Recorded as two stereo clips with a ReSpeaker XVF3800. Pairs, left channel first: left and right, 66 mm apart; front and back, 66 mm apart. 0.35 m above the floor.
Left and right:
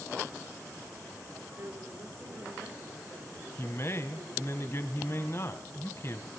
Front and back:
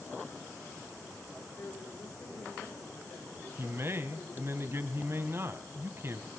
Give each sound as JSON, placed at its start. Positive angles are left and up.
{"t": 1.6, "sound": "a woman speaking", "azimuth_deg": -50, "distance_m": 6.5}
{"t": 3.6, "sound": "a man speaking", "azimuth_deg": 135, "distance_m": 2.0}